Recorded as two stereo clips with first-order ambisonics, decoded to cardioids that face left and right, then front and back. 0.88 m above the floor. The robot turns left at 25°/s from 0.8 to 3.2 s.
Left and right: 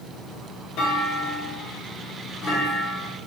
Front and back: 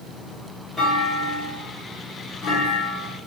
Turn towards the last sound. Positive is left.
turn(degrees=20)